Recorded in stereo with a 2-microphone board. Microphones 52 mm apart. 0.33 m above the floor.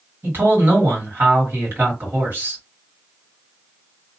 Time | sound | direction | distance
0.2 | a man speaking | 40° right (ahead or behind) | 2 m